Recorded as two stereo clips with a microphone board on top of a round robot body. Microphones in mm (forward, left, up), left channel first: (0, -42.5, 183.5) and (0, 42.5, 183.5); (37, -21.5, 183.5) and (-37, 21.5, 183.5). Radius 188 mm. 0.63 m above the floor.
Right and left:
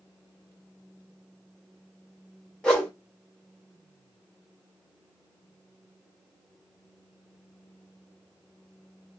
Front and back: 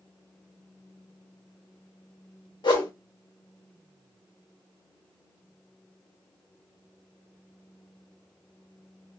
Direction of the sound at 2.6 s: 10° right.